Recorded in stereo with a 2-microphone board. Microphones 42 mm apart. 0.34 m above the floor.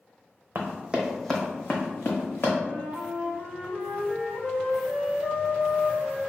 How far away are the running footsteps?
About 0.8 m.